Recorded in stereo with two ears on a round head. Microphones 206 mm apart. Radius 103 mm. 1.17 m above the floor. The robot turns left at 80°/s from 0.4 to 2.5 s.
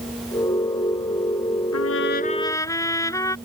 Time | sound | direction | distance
1.7 | a trumpet | 75° left | ?